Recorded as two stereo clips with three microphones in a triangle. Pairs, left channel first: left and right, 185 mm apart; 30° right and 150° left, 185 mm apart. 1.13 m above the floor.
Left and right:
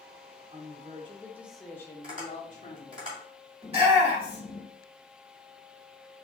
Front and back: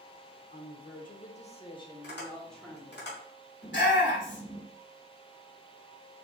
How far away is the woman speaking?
About 1.1 m.